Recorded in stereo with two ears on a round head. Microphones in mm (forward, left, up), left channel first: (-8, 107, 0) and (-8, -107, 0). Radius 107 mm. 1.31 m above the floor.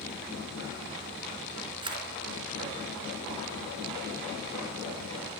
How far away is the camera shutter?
About 4 m.